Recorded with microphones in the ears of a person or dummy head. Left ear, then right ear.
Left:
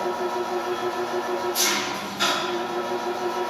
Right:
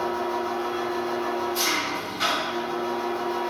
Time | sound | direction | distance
0.0 | an engine running | 65° left (ahead or behind) | 1.6 m